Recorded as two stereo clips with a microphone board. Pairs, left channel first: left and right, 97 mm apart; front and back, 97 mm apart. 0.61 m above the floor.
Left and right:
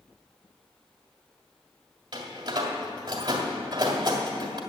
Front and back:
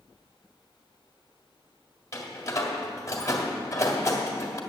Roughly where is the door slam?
Ahead right.